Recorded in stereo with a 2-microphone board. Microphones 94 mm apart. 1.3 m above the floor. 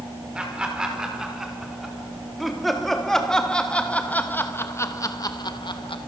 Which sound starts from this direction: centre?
Laughter, at 0.3 s.